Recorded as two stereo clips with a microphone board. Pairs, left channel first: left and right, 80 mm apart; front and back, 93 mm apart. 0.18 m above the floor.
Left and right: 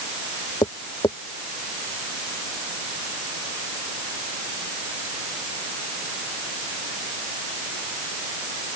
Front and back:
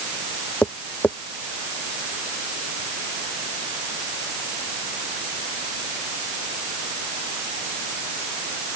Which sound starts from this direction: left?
Tapping, at 0.6 s.